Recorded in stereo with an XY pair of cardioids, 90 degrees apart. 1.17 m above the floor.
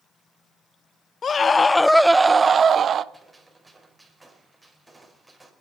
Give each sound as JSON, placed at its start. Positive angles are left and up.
{"t": 1.2, "sound": "a scream", "azimuth_deg": 45, "distance_m": 1.0}
{"t": 3.1, "sound": "a gunshot", "azimuth_deg": -15, "distance_m": 5.5}